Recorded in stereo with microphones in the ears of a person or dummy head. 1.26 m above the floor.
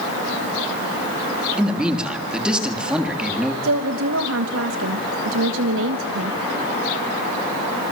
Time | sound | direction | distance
1.6 | a man speaking | centre (ahead or behind) | 3 m
3.6 | a woman speaking | 70° right (ahead or behind) | 1.3 m